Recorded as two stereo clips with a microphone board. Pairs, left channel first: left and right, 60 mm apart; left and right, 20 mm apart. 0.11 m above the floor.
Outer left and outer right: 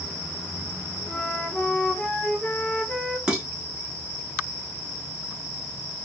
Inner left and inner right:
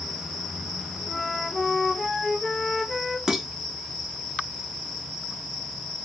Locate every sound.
1.1 s a flute: 20° left (ahead or behind), 0.6 m
3.3 s dishes clattering: 15° right (ahead or behind), 1.0 m